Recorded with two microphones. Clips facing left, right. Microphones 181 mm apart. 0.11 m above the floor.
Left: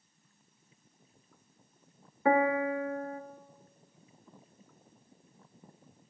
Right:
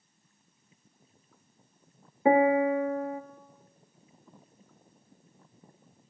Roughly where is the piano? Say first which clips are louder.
Right 5 dB; right.